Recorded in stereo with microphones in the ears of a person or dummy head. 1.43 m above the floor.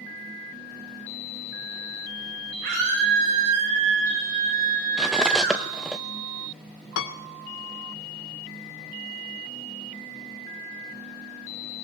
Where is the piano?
70° left (ahead or behind), 1.6 m.